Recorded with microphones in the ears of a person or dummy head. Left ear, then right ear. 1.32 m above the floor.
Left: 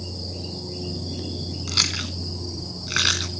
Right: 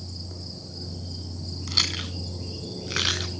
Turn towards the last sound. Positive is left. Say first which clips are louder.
# left 2 dB
turn(degrees=5)  # may be behind; listen again after turning